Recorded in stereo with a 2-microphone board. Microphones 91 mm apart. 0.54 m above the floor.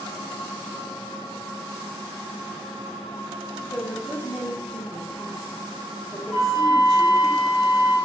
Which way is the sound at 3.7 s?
10° right (ahead or behind).